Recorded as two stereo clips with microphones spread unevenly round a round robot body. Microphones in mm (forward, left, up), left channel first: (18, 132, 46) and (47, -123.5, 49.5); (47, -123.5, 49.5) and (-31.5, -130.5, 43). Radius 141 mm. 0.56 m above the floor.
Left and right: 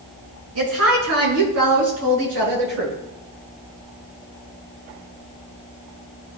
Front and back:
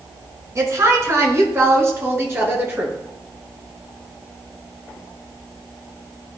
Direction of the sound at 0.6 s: 125° right.